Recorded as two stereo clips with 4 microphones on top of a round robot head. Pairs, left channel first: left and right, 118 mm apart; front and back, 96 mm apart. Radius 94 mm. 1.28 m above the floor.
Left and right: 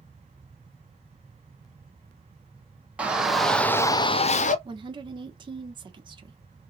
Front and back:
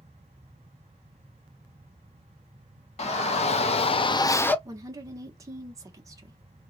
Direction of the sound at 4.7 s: 130° right.